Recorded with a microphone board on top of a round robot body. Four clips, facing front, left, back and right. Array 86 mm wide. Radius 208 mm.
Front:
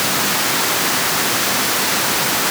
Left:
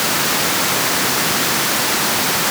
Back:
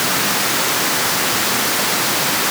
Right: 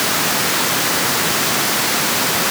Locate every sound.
Only background noise.